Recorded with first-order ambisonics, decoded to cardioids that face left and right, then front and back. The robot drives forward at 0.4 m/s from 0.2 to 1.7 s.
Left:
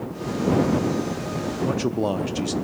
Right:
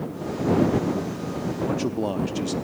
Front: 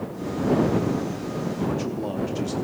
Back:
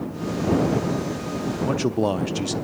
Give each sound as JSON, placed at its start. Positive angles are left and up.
{"t": 1.6, "sound": "a man speaking", "azimuth_deg": 165, "distance_m": 0.6}